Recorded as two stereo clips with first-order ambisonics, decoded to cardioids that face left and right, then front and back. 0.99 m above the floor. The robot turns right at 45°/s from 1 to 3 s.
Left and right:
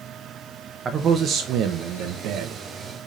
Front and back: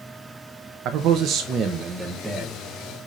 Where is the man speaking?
150° right, 0.6 m; by 2.6 s 80° right, 0.6 m.